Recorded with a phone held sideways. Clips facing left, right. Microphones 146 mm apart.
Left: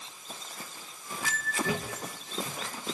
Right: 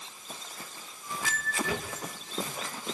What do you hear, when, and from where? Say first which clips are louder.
1.6 s a thud: left 1 dB; 35° left (ahead or behind), 8 m